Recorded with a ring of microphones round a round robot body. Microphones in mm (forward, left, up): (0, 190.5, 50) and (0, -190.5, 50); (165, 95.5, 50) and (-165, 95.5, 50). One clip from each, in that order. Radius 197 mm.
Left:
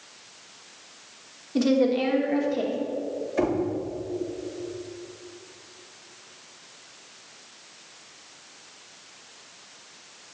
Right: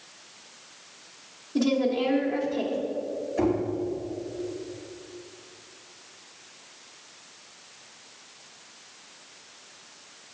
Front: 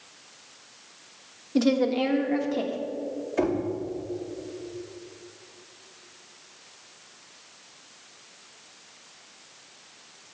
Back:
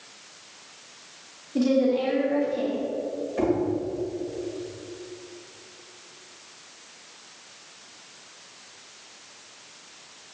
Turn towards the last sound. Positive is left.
turn(degrees=35)